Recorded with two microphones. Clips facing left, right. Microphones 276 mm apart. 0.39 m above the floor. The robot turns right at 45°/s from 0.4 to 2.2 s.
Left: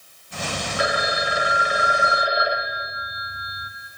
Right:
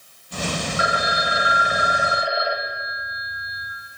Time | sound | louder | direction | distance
0.8 | a phone ringing | left 1 dB | 95° left | 0.9 m